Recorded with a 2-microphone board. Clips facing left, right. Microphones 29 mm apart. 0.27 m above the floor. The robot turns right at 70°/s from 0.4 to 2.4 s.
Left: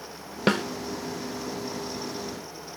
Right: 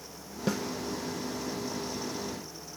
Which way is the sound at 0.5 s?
65° left (ahead or behind).